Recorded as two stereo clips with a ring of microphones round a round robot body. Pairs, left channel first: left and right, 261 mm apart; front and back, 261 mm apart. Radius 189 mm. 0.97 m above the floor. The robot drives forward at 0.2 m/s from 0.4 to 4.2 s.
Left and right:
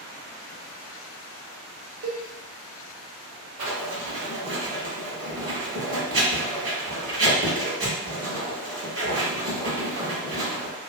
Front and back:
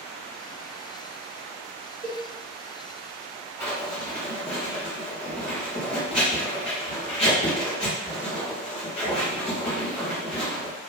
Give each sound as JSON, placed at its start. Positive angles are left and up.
{"t": 2.0, "sound": "a cowbell", "azimuth_deg": -75, "distance_m": 0.6}
{"t": 3.6, "sound": "writing", "azimuth_deg": -90, "distance_m": 1.5}